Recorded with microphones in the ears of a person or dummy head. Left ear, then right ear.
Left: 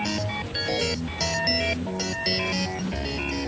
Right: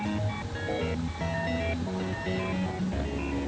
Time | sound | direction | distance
0.0 | a machine running | 80° left | ?